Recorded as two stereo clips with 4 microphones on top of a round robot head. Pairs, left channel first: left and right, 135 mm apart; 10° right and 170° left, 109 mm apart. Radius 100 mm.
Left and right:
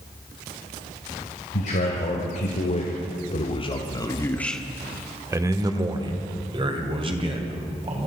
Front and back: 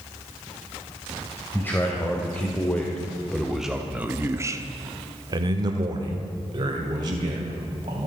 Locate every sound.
1.5 s a man speaking: 60° left, 2.5 m; by 8.1 s 135° right, 3.5 m